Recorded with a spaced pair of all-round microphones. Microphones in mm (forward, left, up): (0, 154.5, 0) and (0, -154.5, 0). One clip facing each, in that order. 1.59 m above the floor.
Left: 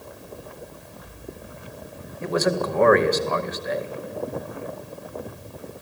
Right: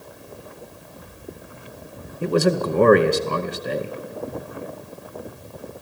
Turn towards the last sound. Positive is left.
turn(degrees=-40)  # may be behind; listen again after turning